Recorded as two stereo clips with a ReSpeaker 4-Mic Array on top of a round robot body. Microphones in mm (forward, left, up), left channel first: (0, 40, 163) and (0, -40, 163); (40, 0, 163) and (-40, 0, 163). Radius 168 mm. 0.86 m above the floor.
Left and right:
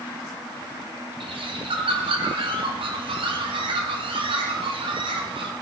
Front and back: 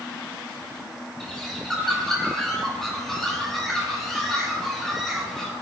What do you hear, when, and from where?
1.2 s a bird: 90° right, 2 m